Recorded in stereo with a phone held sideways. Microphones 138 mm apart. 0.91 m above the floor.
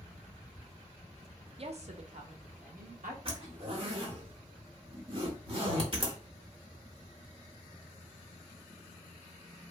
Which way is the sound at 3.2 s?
45° right (ahead or behind).